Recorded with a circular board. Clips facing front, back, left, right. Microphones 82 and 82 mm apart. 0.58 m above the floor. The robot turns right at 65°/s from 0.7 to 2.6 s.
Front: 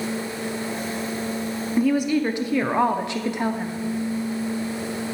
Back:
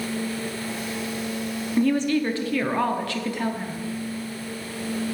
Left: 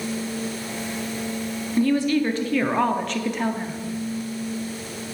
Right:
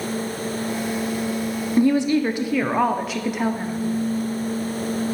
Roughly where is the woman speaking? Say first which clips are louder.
Front 1 dB, right 2 dB; right.